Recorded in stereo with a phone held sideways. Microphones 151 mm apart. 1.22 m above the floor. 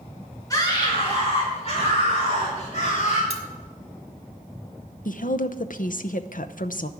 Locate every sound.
0.5 s a scream: 25° left (ahead or behind), 2 m; by 3.2 s 60° left (ahead or behind), 4 m
3.3 s cutlery clinking: 40° right (ahead or behind), 1.8 m
5.0 s a woman speaking: 65° left (ahead or behind), 0.7 m